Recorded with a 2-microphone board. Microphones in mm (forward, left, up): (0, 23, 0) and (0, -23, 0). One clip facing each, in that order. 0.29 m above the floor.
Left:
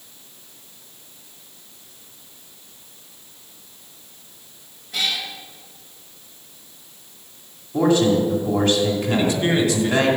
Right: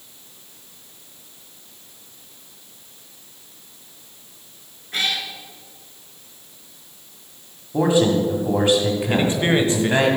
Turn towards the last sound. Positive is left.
turn(degrees=-30)  # may be behind; listen again after turning